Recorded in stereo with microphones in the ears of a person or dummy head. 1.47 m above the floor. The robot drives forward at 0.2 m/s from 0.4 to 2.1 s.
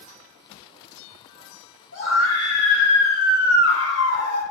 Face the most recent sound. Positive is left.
turn(degrees=45)  # may be behind; listen again after turning